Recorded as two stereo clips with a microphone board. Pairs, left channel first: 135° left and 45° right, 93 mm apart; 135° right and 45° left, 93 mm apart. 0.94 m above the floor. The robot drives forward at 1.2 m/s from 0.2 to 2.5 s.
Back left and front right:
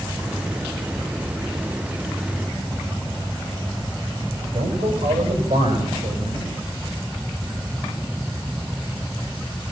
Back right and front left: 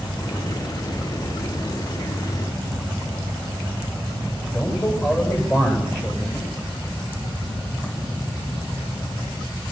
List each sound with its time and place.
4.5 s a man speaking: 75° right, 7 m